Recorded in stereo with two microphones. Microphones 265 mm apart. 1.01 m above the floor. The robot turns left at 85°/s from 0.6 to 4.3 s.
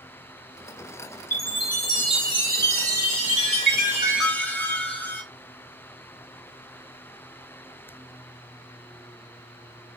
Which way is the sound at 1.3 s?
70° left.